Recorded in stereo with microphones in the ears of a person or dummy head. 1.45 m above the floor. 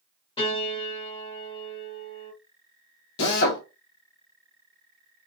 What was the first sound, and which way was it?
A piano, 30° left (ahead or behind).